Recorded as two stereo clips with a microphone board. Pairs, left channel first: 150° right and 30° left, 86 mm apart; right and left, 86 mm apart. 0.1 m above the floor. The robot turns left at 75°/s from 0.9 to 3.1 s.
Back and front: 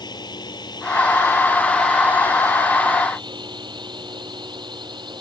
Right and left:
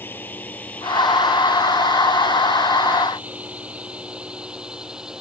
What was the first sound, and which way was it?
A drone, 150° right.